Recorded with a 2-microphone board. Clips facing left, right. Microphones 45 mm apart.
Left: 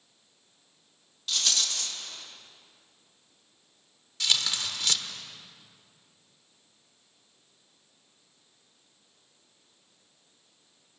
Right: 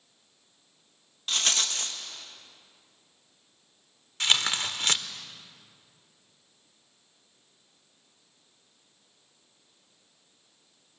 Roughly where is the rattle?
Right.